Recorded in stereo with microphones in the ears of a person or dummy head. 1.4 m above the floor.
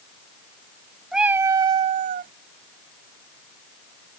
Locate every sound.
1.1 s a cat meowing: 10° right (ahead or behind); by 2.3 s 45° right (ahead or behind)